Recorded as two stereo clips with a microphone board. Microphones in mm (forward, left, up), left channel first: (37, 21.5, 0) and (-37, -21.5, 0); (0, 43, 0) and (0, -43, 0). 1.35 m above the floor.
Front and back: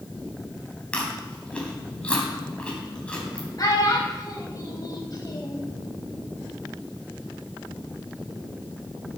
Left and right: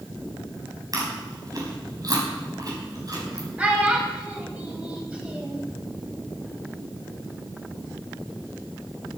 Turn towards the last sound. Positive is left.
turn(degrees=-15)